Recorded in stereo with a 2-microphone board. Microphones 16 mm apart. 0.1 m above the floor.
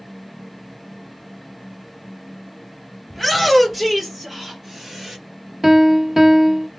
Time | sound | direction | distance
3.1 | a shout | 5° right (ahead or behind) | 2.5 m
5.6 | a piano | 15° right (ahead or behind) | 0.6 m